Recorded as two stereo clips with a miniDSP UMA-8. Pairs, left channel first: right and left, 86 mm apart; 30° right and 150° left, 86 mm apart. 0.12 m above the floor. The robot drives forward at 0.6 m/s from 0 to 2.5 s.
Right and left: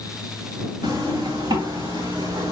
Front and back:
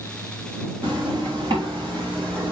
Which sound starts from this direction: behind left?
A zipper, at 0.8 s.